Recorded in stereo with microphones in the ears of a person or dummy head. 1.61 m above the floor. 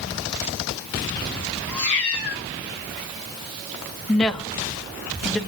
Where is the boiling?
No boiling in this recording.